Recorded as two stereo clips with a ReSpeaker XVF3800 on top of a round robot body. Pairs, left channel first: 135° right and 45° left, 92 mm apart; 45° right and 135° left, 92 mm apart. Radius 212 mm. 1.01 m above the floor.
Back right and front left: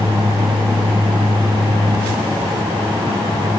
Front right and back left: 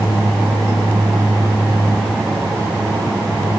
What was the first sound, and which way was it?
Only background noise.